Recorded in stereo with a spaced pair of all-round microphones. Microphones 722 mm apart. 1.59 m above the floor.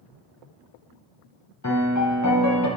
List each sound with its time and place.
1.6 s a piano: 25° left (ahead or behind), 1.2 m